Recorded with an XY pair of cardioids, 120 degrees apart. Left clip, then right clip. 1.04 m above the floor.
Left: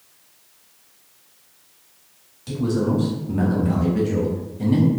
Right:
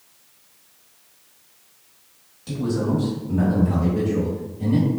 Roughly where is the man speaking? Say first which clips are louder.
Left 2 dB; ahead.